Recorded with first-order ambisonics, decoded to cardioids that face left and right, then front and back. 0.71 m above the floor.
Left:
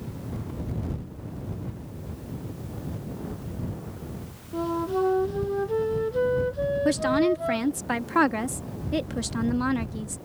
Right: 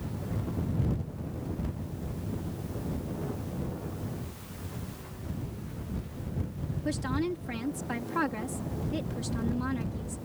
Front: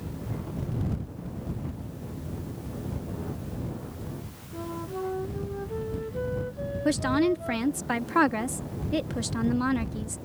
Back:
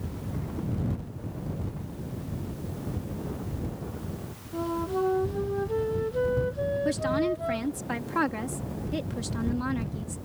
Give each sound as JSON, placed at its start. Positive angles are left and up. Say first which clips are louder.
{"t": 4.5, "sound": "a flute", "louder": "left 23 dB, back 6 dB", "azimuth_deg": 105}
{"t": 6.8, "sound": "a woman speaking", "louder": "left 8 dB, front 6 dB", "azimuth_deg": 60}